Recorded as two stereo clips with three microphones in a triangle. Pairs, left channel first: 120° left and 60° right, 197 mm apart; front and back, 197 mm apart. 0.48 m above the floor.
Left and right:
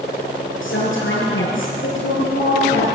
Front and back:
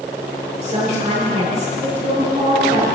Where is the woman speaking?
115° left, 7.5 m.